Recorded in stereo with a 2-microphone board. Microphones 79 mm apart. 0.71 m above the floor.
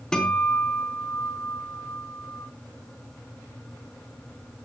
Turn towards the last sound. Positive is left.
turn(degrees=10)  # may be behind; listen again after turning